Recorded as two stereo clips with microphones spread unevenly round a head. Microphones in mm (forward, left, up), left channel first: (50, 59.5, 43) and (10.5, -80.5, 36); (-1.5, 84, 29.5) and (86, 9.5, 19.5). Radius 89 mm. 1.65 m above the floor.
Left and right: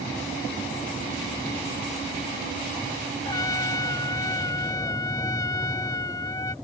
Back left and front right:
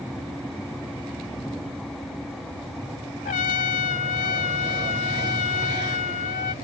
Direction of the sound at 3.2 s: 145° left.